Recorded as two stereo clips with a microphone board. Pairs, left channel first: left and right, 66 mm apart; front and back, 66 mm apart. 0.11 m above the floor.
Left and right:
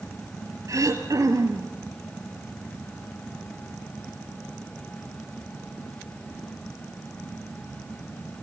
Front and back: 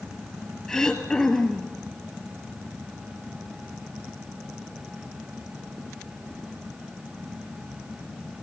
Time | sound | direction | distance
0.7 | throat clearing | 80° right | 1.8 m